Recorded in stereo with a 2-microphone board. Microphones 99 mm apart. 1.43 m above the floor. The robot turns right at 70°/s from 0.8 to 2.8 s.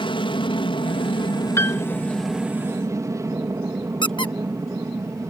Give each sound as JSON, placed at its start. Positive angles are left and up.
{"t": 0.0, "sound": "an aircraft", "azimuth_deg": 75}
{"t": 1.6, "sound": "a piano", "side_deg": 30}
{"t": 4.0, "sound": "a squeak", "side_deg": 50}